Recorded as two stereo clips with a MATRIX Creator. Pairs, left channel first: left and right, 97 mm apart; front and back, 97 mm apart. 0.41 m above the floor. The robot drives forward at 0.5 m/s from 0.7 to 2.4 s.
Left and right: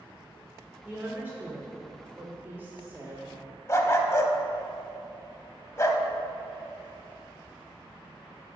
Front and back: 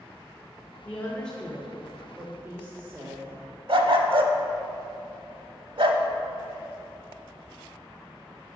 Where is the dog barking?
150° left, 0.6 m.